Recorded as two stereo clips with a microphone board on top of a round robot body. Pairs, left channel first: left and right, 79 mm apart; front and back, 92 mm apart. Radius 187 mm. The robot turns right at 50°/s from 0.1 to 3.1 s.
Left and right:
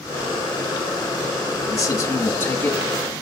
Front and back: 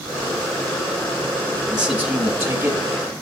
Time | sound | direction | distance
1.7 | a man speaking | 100° left | 1.6 m